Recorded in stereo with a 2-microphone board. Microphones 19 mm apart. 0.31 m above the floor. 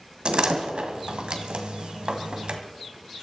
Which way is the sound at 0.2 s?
60° right (ahead or behind).